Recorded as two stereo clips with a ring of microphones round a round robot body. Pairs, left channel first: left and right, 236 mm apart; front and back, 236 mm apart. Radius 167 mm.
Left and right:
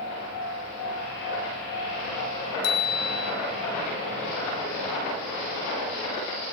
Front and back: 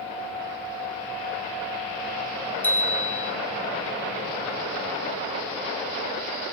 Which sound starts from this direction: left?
A bicycle bell, at 2.6 s.